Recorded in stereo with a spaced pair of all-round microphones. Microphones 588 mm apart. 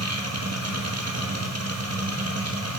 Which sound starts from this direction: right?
A machine running, at 0.0 s.